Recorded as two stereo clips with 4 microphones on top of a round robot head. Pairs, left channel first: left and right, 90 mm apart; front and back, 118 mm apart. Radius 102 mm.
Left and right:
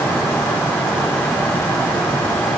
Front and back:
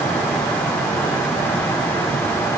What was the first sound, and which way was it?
Only background noise.